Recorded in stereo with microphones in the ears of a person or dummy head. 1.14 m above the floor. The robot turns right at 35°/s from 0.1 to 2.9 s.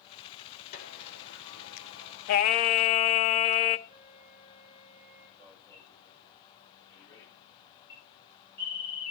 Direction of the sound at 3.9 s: 20° right (ahead or behind).